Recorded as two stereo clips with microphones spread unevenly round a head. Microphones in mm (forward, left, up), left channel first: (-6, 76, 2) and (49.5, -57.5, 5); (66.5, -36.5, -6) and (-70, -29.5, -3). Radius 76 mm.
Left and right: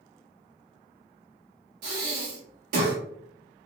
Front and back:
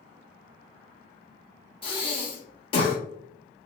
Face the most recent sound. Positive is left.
turn(degrees=-55)